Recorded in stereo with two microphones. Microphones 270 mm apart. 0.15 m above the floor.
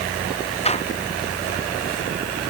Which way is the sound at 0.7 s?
25° left (ahead or behind).